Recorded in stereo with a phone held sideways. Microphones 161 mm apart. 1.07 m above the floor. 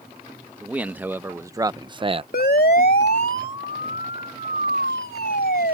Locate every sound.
0.6 s a man speaking: 10° right (ahead or behind); by 2.2 s 35° right (ahead or behind)
2.3 s a siren: 70° left (ahead or behind); by 5.8 s 75° left (ahead or behind)